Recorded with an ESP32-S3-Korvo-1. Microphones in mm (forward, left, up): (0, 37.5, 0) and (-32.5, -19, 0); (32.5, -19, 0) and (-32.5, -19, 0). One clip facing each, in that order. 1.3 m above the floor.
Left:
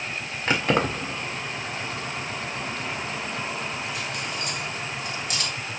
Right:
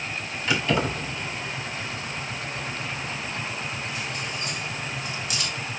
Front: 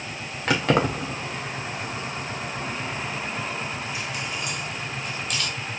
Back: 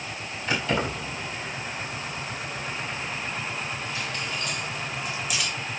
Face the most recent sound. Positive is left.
turn(degrees=100)